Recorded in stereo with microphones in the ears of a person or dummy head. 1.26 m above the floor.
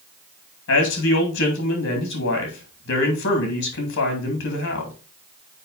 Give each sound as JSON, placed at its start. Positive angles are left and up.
{"t": 0.7, "sound": "a man speaking", "side_deg": 55, "distance_m": 2.5}